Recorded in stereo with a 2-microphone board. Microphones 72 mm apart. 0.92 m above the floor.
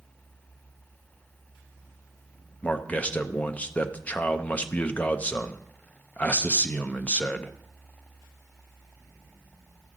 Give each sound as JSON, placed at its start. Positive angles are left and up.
{"t": 2.6, "sound": "a man speaking", "side_deg": 20, "distance_m": 0.7}